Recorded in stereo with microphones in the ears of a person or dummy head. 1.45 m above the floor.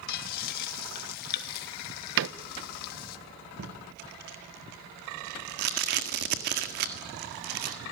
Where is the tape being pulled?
50° right (ahead or behind), 1.7 m.